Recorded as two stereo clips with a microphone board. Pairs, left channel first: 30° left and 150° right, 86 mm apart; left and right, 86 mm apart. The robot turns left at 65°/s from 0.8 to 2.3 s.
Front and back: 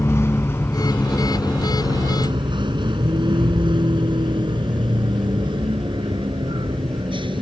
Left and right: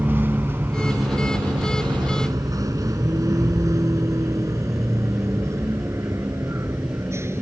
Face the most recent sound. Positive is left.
turn(degrees=-150)